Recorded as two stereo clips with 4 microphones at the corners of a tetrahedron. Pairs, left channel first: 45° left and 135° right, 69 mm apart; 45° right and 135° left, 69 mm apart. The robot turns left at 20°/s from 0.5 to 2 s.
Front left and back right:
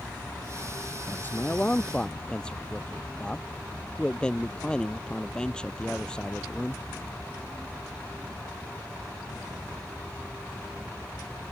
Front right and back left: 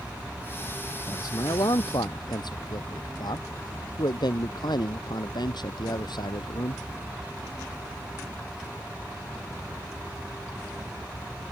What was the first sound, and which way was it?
A man speaking, 15° right.